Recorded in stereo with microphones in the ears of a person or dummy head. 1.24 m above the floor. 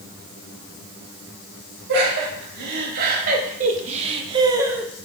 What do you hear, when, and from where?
1.9 s laughter: 60° right (ahead or behind), 3.5 m; by 4.9 s 5° right (ahead or behind), 1.2 m